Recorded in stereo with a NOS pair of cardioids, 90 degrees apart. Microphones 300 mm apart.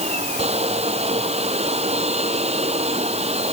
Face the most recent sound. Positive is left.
turn(degrees=-20)